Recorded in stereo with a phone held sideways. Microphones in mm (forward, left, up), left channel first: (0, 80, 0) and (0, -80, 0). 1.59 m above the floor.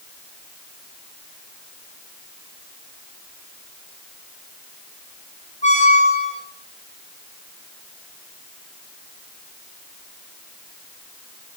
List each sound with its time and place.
5.6 s a squeak: 50° left (ahead or behind), 1.7 m